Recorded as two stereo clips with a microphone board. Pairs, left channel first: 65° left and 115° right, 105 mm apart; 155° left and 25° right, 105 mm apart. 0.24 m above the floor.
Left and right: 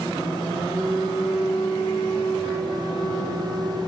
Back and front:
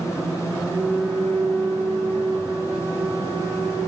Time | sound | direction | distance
0.7 | a flute | 40° left | 2.5 m